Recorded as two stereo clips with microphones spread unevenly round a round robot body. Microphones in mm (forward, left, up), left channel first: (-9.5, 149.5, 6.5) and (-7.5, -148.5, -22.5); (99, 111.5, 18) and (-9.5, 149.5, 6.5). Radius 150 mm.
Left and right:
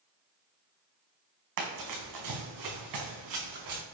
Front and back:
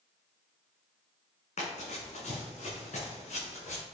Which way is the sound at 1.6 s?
60° right.